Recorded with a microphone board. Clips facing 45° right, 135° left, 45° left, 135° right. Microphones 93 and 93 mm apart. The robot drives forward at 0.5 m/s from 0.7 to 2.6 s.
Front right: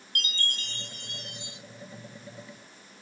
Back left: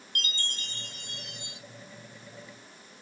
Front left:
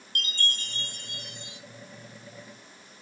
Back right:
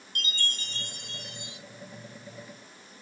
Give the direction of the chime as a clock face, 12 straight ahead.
10 o'clock.